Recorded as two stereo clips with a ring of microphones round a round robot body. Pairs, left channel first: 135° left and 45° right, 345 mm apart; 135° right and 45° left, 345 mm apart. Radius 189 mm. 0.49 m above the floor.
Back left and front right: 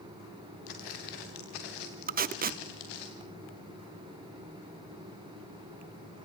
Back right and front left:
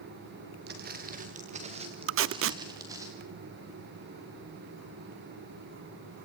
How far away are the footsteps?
About 4 m.